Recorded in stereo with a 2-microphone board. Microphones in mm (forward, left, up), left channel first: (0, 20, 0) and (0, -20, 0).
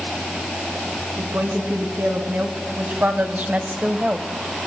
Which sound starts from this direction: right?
A woman speaking, at 1.2 s.